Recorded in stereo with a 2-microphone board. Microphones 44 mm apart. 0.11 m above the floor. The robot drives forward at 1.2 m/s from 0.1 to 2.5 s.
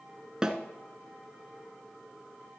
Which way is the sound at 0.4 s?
15° right (ahead or behind).